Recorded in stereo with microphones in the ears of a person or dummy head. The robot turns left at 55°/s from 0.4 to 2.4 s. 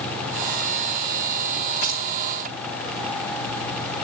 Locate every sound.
1.8 s keys jangling: 40° right (ahead or behind), 2.5 m; by 2.0 s 50° right (ahead or behind), 2.5 m